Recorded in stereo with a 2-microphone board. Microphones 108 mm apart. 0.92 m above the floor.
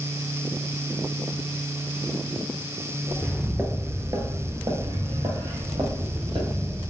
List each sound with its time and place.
3.1 s footsteps: centre (ahead or behind), 1.0 m; by 6.9 s 50° right (ahead or behind), 2 m